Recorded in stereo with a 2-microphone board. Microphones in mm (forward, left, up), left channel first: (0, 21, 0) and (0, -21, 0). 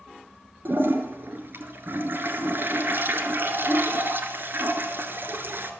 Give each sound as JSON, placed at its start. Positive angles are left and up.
{"t": 0.7, "sound": "a toilet flushing", "side_deg": -55, "distance_m": 1.9}